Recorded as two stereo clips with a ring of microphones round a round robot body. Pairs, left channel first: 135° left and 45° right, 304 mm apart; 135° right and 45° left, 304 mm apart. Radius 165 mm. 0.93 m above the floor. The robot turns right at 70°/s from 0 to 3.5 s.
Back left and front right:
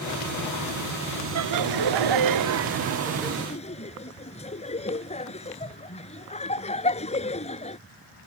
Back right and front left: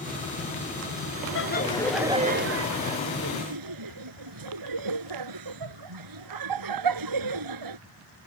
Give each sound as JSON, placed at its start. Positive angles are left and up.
{"t": 1.4, "sound": "laughter", "azimuth_deg": -85}